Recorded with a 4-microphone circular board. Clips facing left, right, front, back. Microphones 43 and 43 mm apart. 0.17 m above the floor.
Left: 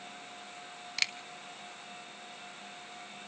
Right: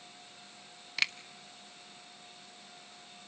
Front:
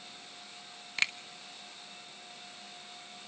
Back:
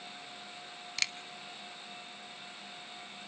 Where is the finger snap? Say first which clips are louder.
Right 2 dB, front 5 dB; 15° right, 0.8 m.